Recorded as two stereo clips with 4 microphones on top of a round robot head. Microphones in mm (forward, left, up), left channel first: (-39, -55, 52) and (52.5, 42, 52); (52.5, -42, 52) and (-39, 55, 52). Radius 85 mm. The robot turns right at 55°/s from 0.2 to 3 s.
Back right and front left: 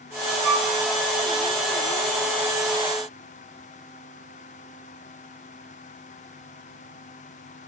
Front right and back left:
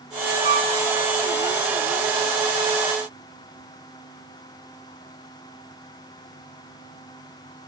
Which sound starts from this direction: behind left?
A flute, at 0.4 s.